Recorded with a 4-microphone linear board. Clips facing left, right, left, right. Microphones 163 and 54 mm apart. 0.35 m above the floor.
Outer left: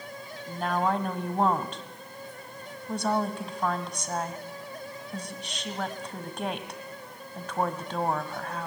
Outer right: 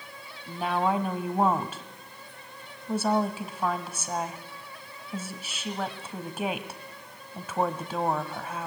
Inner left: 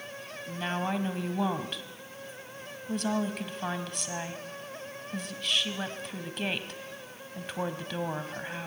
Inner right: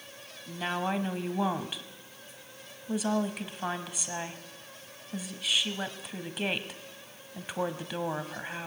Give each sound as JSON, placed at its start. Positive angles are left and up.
{"t": 0.5, "sound": "a woman speaking", "side_deg": -5, "distance_m": 1.7}